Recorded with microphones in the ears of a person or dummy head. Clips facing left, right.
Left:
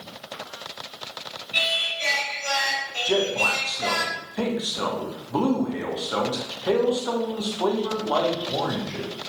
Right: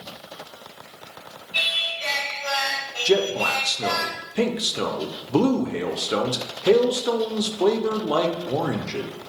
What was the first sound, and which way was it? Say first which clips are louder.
Singing: left 4 dB; 75° left (ahead or behind).